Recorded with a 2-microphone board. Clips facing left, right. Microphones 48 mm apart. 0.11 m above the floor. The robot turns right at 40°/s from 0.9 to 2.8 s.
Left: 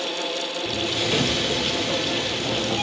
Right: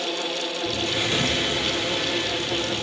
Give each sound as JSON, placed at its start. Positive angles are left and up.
{"t": 0.7, "sound": "a sliding door", "azimuth_deg": 20, "distance_m": 2.5}